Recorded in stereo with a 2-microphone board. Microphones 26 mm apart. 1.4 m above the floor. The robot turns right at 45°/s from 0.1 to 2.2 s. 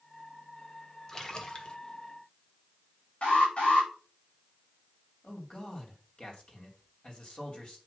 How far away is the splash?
About 1.5 m.